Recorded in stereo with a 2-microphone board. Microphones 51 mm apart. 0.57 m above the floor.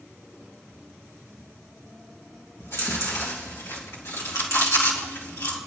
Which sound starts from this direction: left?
Chewing, at 2.6 s.